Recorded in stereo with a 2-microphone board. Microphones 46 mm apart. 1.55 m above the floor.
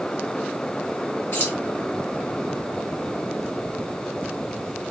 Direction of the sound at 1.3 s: 65° left (ahead or behind).